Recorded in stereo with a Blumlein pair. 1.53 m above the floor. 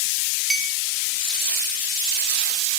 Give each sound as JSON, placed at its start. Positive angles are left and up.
{"t": 0.5, "sound": "a clink", "azimuth_deg": -15, "distance_m": 2.5}